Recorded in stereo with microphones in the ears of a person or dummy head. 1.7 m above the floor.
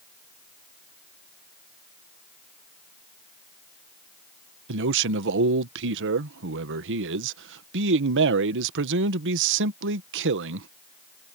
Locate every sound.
4.7 s a man speaking: 70° right (ahead or behind)